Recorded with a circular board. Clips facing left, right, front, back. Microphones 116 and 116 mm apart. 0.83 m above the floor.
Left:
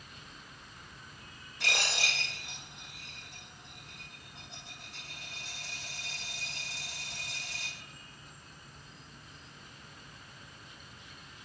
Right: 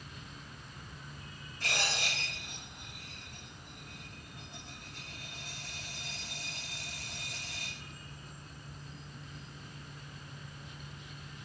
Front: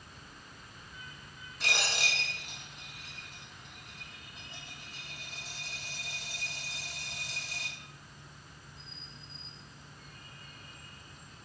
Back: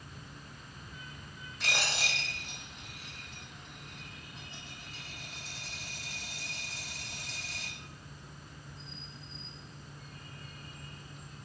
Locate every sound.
1.6 s a dropped coin: 90° left, 3 m